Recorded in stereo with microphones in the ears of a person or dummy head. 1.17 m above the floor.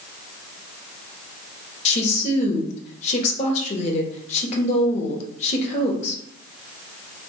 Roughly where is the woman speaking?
Left.